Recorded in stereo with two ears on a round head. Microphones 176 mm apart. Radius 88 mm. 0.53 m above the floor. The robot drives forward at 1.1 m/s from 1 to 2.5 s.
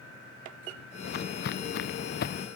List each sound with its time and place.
1.1 s footsteps: 55° left (ahead or behind); by 2.5 s 50° left (ahead or behind)